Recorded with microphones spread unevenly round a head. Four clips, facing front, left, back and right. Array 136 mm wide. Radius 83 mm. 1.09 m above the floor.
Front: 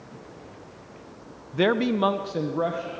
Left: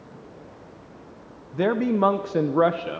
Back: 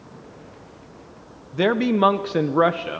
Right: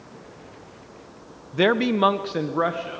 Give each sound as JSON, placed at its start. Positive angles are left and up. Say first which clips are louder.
{"t": 1.5, "sound": "a man speaking", "louder": "right 2 dB, back 3 dB", "azimuth_deg": -95, "distance_m": 0.7}